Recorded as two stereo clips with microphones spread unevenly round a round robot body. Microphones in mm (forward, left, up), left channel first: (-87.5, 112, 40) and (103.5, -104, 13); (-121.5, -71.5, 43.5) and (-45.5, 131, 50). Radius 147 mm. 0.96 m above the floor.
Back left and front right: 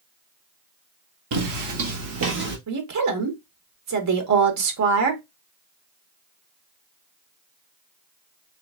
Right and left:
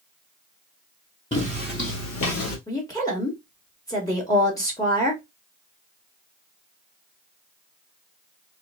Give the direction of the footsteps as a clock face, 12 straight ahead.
1 o'clock.